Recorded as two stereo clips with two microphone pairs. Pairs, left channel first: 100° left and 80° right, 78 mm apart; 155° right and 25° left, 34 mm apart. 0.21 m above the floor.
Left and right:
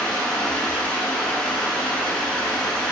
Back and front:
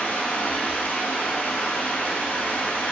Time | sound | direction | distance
0.0 | running water | 175° left | 0.9 m